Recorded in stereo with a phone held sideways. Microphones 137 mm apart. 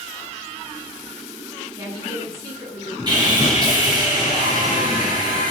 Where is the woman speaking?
25° right (ahead or behind), 8.5 m.